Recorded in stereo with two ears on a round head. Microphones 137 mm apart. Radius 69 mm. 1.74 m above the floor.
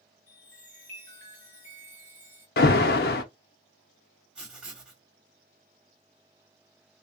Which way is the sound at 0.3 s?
10° left (ahead or behind).